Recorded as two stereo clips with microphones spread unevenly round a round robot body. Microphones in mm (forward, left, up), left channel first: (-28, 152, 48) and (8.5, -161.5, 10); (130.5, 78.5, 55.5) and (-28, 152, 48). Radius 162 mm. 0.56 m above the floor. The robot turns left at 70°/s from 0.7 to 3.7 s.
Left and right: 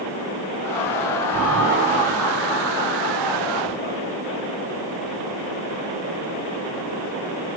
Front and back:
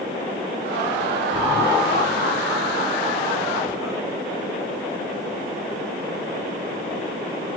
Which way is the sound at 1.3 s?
105° right.